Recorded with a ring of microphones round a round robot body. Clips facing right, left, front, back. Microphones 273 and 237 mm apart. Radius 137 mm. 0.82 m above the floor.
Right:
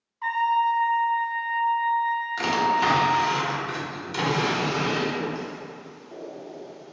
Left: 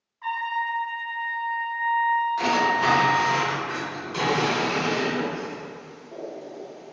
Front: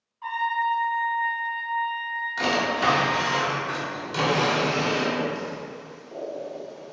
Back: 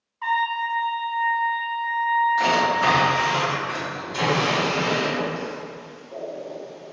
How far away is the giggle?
No giggle in this recording.